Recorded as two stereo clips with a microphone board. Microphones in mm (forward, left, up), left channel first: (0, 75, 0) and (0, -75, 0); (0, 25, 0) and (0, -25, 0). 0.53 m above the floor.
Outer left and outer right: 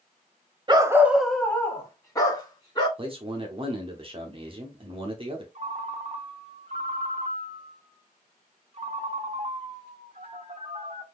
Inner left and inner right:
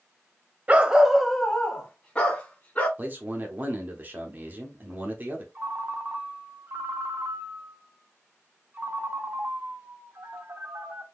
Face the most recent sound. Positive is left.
turn(degrees=-45)  # may be behind; listen again after turning